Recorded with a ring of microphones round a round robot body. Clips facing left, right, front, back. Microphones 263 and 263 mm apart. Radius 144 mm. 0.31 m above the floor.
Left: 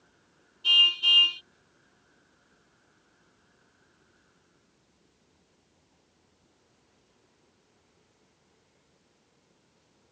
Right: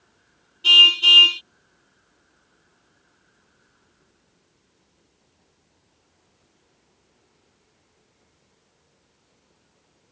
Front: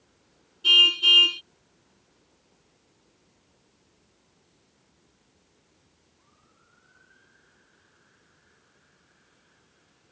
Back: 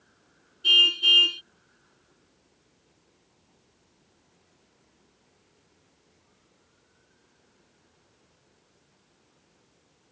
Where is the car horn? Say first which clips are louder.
Right 12 dB, front 1 dB; 80° right.